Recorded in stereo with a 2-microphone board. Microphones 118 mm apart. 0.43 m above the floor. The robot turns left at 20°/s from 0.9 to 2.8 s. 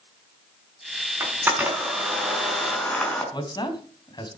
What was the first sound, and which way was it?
A camera shutter, 25° right (ahead or behind).